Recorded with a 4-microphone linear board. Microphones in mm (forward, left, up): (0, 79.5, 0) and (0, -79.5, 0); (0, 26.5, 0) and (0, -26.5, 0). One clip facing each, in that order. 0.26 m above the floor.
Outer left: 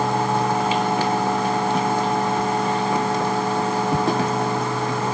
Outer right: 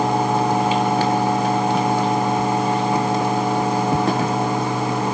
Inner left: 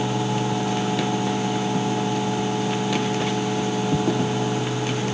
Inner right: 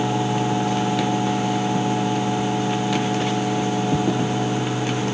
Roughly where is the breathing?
I don't hear breathing.